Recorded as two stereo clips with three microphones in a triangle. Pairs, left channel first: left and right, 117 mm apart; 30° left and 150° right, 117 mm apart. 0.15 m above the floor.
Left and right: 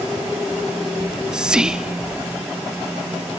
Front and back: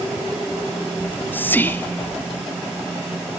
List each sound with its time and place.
1.0 s whispering: 15° right, 1.1 m